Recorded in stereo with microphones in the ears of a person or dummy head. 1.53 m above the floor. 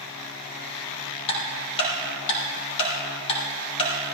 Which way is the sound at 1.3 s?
35° left (ahead or behind).